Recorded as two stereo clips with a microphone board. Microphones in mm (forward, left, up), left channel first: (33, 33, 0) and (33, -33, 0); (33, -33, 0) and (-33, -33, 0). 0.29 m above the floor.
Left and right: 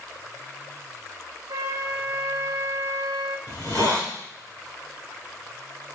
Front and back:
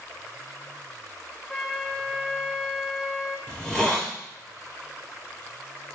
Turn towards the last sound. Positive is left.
turn(degrees=85)